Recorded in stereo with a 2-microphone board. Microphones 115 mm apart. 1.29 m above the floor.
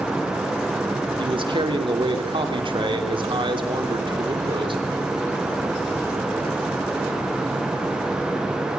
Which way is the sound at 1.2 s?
45° right (ahead or behind).